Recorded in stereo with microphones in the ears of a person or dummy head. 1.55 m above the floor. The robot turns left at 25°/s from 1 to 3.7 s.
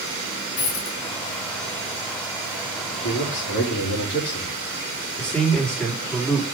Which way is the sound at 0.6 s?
50° left (ahead or behind).